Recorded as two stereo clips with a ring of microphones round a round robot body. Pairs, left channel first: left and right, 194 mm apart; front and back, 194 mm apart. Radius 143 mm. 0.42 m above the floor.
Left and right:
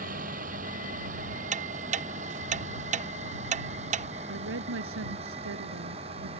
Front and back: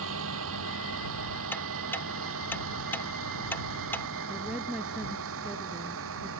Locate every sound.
0.0 s a vehicle: 150° right; by 6.4 s 160° right
1.5 s ticking: 75° right
4.3 s a woman speaking: 90° right